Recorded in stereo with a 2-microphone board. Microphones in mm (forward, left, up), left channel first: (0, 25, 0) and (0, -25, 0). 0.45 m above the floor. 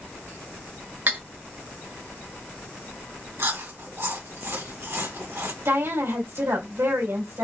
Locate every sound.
1.1 s cutlery clinking: 35° right (ahead or behind), 0.9 m
3.4 s chewing: 55° right (ahead or behind), 2 m
5.7 s a woman speaking: 65° right (ahead or behind), 2.5 m